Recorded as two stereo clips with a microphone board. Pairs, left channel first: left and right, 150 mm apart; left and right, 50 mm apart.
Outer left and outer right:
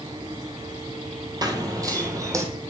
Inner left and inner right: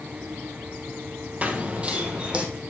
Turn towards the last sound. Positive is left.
turn(degrees=-20)  # may be behind; listen again after turning